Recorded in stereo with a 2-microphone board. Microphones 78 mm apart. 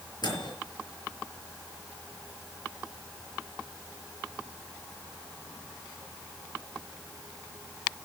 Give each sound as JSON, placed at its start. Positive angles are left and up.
{"t": 0.2, "sound": "a microwave", "side_deg": 65, "distance_m": 6.5}